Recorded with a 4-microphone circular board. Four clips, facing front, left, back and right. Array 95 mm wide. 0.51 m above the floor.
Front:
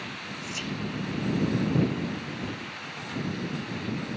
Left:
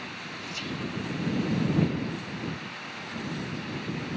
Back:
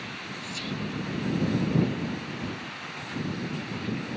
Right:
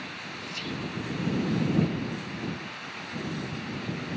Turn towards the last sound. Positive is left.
turn(degrees=5)